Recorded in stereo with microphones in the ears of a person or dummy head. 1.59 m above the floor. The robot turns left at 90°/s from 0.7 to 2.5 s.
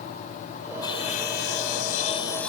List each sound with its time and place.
0.8 s sawing: 155° left; by 2.5 s 5° left